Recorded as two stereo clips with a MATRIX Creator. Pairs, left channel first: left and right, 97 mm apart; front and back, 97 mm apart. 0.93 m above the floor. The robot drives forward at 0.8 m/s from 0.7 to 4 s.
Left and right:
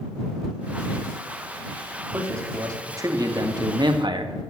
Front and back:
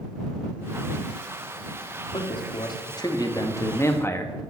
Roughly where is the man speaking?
Ahead right.